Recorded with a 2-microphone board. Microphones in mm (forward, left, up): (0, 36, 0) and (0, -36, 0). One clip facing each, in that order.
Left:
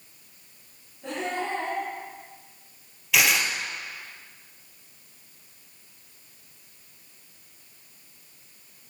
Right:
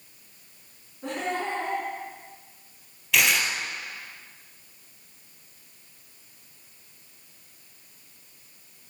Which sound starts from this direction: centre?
Tearing paper, at 3.1 s.